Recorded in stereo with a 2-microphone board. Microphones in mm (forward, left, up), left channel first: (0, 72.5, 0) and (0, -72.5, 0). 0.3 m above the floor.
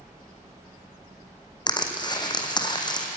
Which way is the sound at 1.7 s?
30° left (ahead or behind).